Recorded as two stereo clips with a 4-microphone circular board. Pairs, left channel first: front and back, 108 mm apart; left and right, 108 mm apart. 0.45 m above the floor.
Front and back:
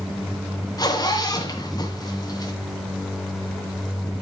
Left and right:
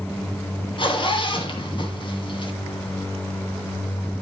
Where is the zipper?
50° left, 2 m.